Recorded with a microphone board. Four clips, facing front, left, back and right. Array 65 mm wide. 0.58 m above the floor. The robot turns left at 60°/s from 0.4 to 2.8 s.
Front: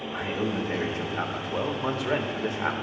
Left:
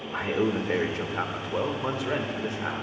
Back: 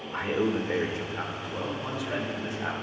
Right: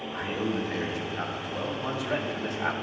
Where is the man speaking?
130° left, 1.6 m; by 2.7 s 10° right, 1.6 m.